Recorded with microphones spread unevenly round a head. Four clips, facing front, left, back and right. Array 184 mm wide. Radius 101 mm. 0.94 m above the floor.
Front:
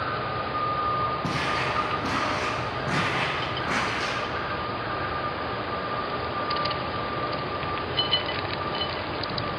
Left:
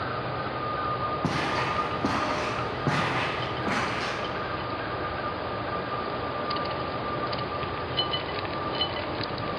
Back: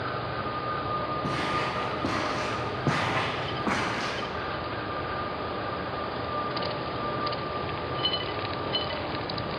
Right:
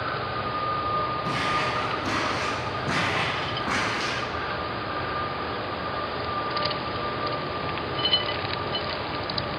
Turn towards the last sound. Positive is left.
turn(degrees=160)